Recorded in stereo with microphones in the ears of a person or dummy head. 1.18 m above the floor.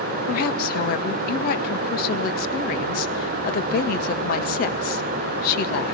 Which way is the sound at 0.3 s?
50° left (ahead or behind).